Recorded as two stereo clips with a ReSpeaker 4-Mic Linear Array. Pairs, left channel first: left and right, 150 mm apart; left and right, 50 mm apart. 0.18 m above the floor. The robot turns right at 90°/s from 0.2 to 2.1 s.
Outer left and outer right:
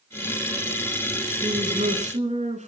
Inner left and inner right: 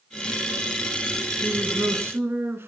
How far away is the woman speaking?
About 2.5 m.